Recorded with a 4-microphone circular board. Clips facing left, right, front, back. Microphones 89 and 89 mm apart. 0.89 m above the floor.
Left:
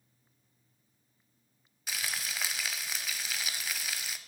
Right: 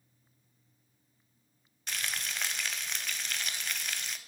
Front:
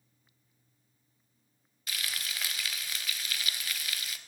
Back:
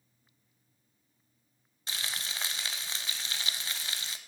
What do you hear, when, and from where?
1.9 s frying: 170° left, 0.8 m